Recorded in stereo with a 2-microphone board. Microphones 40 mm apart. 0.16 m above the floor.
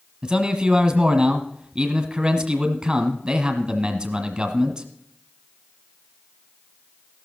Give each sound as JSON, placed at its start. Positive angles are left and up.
{"t": 0.2, "sound": "a man speaking", "side_deg": -20, "distance_m": 1.5}